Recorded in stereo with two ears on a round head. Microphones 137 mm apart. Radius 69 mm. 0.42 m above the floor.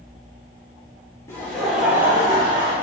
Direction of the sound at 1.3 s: 20° left (ahead or behind).